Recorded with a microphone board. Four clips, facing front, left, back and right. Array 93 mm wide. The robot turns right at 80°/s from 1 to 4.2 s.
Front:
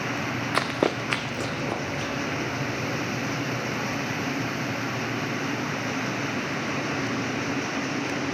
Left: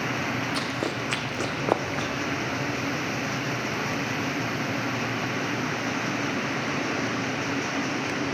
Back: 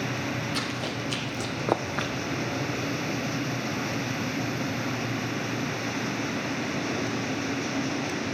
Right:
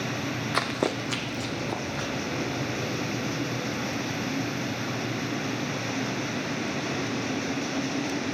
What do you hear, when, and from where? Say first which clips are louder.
0.5 s running footsteps: right 2 dB, front 7 dB; 30° right, 1.1 m; by 2.1 s 170° left, 1.3 m